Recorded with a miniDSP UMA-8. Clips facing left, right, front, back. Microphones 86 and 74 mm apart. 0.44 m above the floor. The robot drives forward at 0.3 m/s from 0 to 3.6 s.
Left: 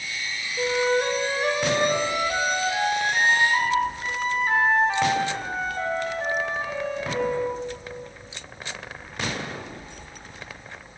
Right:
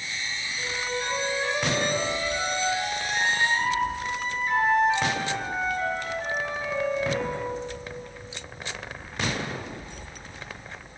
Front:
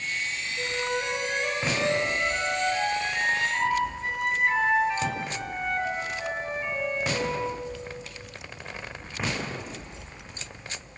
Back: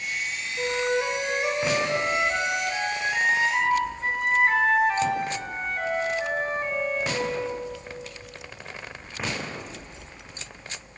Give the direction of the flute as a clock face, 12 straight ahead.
8 o'clock.